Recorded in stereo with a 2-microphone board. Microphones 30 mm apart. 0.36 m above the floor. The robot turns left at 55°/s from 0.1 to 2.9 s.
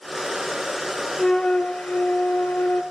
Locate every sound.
1.2 s a flute: 155° left, 1.7 m; by 2.8 s 65° left, 1.7 m